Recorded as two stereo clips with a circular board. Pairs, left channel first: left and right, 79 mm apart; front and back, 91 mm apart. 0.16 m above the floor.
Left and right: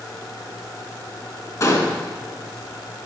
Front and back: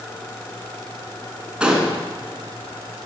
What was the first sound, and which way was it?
A gunshot, 105° left.